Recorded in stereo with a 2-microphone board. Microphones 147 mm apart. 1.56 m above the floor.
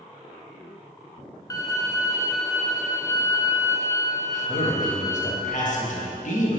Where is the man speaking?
60° left (ahead or behind), 1.5 m.